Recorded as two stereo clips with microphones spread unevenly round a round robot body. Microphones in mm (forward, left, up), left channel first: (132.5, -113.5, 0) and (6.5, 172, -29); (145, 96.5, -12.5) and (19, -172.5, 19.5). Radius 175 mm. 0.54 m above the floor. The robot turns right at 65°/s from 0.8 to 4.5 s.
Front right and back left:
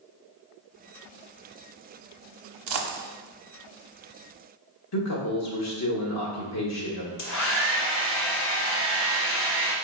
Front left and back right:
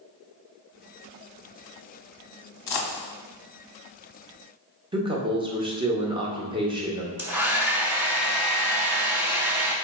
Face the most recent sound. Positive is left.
turn(degrees=-35)